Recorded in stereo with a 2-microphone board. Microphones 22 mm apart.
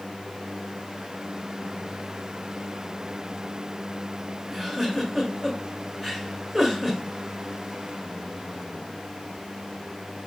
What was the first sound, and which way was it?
A giggle, 5° left (ahead or behind).